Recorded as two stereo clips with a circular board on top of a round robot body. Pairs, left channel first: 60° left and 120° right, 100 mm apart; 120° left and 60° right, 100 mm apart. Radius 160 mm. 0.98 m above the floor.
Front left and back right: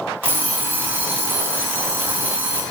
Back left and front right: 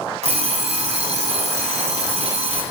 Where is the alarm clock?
50° right, 1.0 m.